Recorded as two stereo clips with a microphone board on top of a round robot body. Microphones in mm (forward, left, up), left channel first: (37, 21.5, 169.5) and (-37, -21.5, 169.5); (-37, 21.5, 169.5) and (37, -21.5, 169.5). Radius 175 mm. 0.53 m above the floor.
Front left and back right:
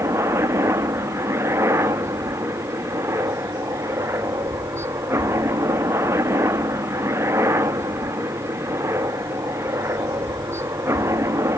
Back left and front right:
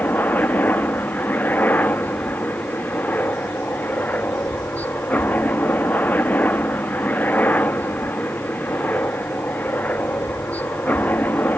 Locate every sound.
0.0 s a helicopter: 160° right